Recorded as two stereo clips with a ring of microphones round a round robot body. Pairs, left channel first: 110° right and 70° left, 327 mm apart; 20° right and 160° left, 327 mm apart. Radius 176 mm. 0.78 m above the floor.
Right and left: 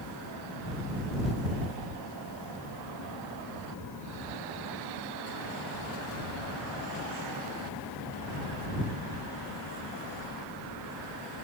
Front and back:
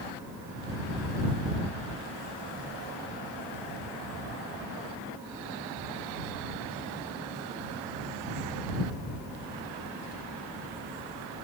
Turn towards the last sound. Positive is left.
No sound to turn to.